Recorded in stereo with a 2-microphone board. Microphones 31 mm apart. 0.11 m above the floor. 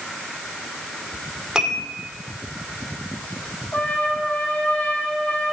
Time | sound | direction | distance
1.6 | dishes clattering | 25° right (ahead or behind) | 2.5 m
3.7 | a trumpet | 70° left (ahead or behind) | 3 m